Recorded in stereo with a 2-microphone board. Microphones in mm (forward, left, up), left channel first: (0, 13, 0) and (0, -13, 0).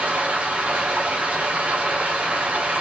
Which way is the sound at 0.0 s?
75° right (ahead or behind).